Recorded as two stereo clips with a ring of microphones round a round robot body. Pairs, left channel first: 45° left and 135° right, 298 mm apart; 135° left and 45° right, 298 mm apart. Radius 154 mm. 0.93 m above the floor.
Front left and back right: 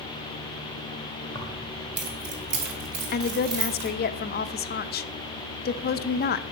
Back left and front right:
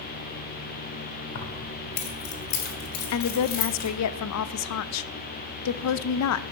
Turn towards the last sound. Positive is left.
turn(degrees=105)